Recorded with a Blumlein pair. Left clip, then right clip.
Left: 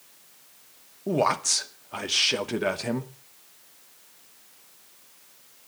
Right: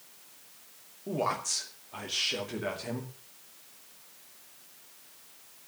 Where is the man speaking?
65° left, 2.0 m.